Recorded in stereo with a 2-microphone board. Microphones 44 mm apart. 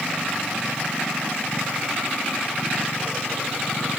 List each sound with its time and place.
Only background noise.